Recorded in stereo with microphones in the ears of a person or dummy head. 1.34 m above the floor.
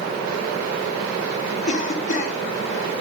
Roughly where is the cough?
Left.